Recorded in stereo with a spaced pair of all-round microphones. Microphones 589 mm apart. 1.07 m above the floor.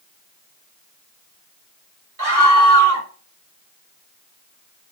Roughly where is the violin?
I don't hear a violin.